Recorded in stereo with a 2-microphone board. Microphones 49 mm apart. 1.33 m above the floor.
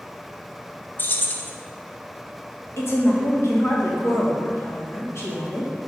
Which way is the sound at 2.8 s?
60° left (ahead or behind).